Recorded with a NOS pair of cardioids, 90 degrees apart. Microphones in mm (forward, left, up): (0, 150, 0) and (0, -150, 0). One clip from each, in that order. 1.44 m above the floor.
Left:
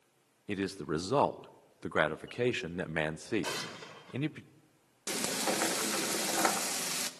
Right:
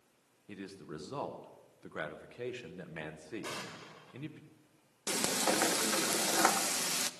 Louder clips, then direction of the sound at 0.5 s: Left 11 dB; 55° left.